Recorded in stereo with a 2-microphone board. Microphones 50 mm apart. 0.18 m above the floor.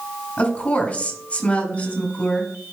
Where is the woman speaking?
30° left (ahead or behind), 1.9 m.